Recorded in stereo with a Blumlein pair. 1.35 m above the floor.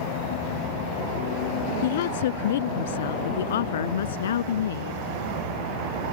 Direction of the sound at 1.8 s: 55° left.